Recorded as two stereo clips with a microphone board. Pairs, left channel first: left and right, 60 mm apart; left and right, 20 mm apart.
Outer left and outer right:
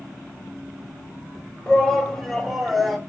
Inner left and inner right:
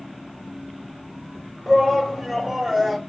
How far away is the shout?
About 1.7 m.